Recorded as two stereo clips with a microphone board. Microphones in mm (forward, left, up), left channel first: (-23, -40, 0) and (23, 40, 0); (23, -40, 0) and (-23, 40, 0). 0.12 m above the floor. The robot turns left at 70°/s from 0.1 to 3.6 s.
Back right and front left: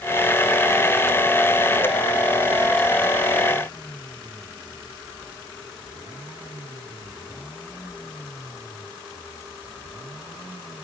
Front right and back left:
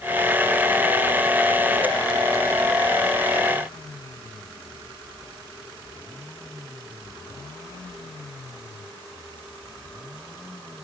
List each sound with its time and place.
Only background noise.